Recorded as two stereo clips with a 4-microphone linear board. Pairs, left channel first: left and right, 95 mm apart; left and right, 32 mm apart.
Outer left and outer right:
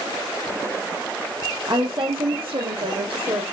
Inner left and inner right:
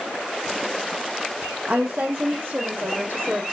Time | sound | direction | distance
1.7 | a woman speaking | 55° right (ahead or behind) | 4.5 m